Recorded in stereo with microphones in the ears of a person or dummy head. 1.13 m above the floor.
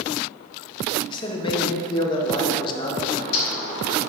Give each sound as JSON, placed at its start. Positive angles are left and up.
{"t": 1.1, "sound": "a man speaking", "side_deg": 30, "distance_m": 1.4}
{"t": 3.1, "sound": "a bird", "side_deg": 50, "distance_m": 2.5}